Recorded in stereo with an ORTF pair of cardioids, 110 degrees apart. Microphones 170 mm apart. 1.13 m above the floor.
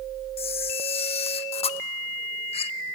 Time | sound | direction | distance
0.4 | a camera shutter | 35° left | 0.9 m